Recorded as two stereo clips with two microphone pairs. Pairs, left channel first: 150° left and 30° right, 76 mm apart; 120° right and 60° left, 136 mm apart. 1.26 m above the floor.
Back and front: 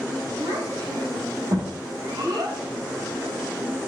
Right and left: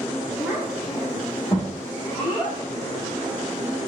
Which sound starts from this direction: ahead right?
A child speaking, at 0.4 s.